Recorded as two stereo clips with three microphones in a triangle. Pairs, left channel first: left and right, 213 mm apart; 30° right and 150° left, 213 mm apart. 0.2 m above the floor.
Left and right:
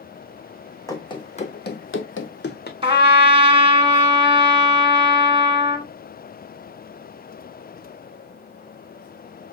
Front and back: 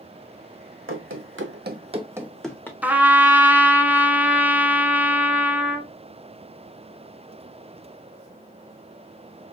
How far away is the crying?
No crying in this recording.